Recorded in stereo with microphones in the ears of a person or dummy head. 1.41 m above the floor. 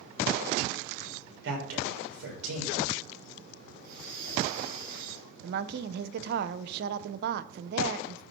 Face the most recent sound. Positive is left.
turn(degrees=-55)  # may be behind; listen again after turning